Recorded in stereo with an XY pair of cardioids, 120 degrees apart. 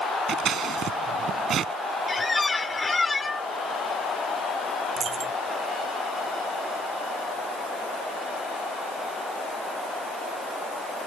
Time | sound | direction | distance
0.3 | scissors | 55° right | ?
2.1 | a squeak | 20° left | ?
5.0 | a dropped coin | 45° right | ?